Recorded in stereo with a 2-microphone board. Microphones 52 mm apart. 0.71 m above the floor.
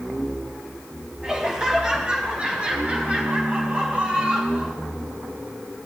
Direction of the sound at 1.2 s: 15° right (ahead or behind).